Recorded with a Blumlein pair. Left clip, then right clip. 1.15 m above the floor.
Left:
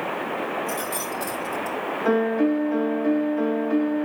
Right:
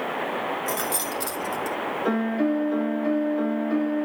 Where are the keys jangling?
50° right, 2.5 m; by 1.8 s 20° right, 2 m.